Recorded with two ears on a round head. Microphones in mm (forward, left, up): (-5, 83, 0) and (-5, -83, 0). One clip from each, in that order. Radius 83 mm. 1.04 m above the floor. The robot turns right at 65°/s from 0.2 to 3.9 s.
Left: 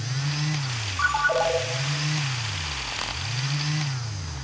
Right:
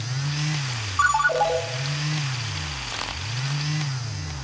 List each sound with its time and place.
1.0 s a ringtone: 90° right, 1.4 m; by 1.6 s 55° right, 1.4 m